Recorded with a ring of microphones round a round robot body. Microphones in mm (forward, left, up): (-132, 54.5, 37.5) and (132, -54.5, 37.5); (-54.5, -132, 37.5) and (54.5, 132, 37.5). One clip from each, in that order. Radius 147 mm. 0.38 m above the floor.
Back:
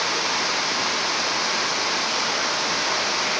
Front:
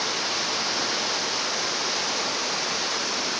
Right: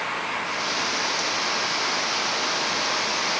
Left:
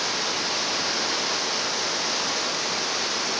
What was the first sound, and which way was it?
Only background noise.